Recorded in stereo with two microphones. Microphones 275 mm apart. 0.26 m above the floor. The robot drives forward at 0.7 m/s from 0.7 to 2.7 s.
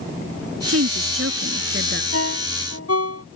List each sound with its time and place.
0.7 s a woman speaking: 60° right (ahead or behind); by 2.0 s 50° right (ahead or behind)
2.1 s a ringtone: 60° left (ahead or behind); by 3.2 s 65° left (ahead or behind)